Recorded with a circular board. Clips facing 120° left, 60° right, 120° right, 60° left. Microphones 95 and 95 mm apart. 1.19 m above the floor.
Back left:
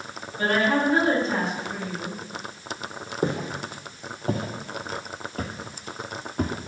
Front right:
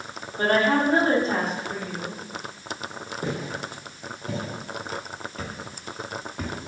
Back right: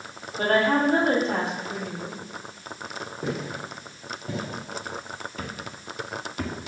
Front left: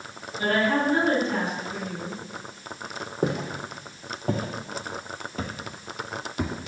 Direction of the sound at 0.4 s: 105° right.